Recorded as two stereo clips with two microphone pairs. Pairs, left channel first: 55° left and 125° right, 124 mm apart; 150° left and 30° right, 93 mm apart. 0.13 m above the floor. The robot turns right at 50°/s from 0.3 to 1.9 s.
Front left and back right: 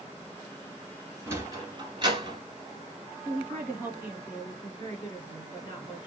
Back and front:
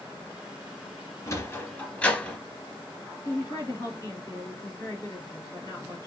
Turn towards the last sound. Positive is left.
turn(degrees=125)